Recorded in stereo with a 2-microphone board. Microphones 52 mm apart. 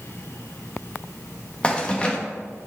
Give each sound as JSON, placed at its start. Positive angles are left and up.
{"t": 1.6, "sound": "keys jangling", "side_deg": 20, "distance_m": 1.0}